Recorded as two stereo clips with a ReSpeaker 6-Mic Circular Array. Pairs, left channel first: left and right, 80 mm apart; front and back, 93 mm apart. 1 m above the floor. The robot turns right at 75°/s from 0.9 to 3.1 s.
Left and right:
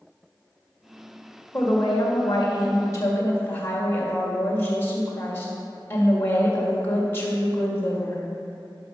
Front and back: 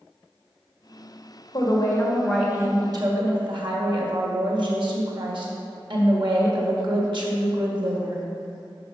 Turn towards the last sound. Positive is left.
turn(degrees=150)